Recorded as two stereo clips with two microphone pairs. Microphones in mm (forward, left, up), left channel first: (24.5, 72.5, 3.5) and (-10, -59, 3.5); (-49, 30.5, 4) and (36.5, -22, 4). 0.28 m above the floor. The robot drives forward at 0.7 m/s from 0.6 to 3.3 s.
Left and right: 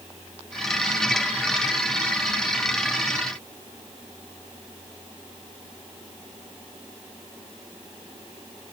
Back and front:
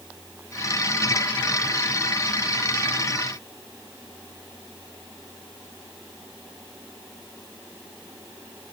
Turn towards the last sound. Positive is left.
No sound to turn to.